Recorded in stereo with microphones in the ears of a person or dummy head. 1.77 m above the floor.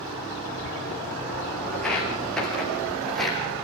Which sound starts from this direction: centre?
Footsteps, at 1.7 s.